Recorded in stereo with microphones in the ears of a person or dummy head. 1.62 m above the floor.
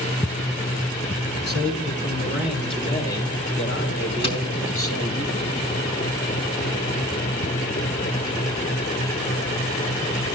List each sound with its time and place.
1.5 s a man speaking: 60° left (ahead or behind), 3.5 m; by 5.2 s 55° left (ahead or behind), 6 m
4.2 s tapping: 35° left (ahead or behind), 2.5 m